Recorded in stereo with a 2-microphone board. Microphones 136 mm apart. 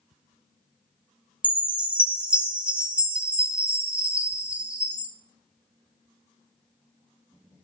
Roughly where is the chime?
Centre.